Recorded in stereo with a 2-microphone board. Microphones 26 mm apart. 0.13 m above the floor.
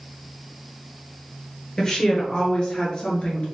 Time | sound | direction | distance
1.8 | a woman speaking | 25° left (ahead or behind) | 1.8 m